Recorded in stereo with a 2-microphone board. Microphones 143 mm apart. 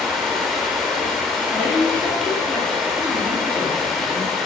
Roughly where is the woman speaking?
Centre.